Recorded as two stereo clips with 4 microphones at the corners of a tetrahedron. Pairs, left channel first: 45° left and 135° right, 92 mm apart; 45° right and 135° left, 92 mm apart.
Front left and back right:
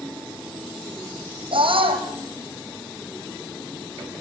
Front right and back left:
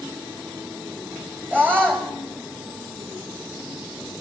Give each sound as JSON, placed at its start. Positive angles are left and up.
{"t": 1.5, "sound": "a scream", "azimuth_deg": -155, "distance_m": 6.0}